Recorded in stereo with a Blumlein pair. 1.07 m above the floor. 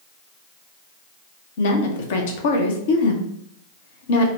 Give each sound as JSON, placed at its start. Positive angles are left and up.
{"t": 1.6, "sound": "a woman speaking", "azimuth_deg": 55, "distance_m": 0.8}